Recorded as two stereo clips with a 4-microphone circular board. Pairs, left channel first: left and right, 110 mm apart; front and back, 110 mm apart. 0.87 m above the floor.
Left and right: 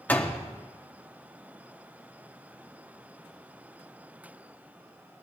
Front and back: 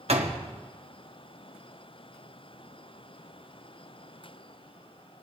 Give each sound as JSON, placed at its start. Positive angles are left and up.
{"t": 0.1, "sound": "a door slam", "azimuth_deg": 165, "distance_m": 1.3}